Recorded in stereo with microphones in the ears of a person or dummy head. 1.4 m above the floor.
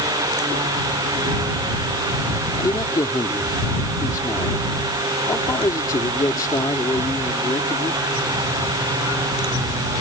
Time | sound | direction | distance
2.6 | a man speaking | 20° left (ahead or behind) | ?